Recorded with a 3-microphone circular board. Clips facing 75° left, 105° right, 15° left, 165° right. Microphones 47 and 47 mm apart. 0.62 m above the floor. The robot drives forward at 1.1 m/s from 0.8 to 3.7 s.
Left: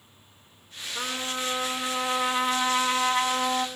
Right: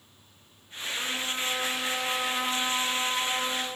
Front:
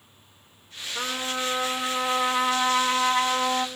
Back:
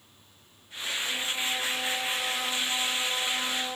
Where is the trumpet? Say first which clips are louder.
Left 1 dB, front 4 dB; 20° left, 5.5 m; by 3.7 s 40° left, 3 m.